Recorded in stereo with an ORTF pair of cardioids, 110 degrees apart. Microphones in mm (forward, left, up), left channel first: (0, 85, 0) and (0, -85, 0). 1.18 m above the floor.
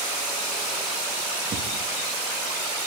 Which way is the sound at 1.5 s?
45° right.